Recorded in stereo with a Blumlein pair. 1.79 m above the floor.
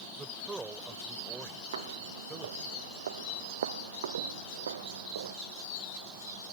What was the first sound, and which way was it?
A man speaking, 10° right.